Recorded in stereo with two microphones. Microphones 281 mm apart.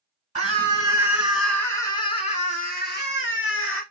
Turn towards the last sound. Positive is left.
turn(degrees=45)  # may be behind; listen again after turning